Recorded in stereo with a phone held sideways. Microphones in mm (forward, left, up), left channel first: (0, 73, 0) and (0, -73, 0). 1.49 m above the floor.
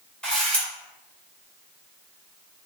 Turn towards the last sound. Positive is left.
turn(degrees=5)  # may be behind; listen again after turning